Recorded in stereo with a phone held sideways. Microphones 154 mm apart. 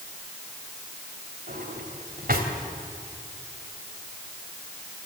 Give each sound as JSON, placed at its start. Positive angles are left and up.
{"t": 1.5, "sound": "a drawer", "side_deg": -75, "distance_m": 2.5}